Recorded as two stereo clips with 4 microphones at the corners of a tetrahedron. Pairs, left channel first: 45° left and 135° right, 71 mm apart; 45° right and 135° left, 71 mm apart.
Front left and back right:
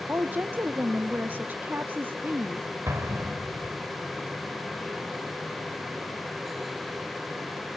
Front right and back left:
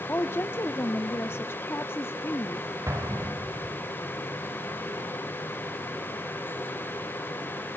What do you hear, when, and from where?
0.1 s a woman speaking: 80° right, 1.0 m
2.9 s an explosion: 175° left, 2.5 m